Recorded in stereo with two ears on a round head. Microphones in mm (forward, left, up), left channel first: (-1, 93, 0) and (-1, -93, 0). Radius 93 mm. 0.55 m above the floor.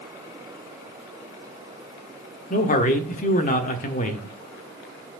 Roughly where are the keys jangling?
No keys jangling in this recording.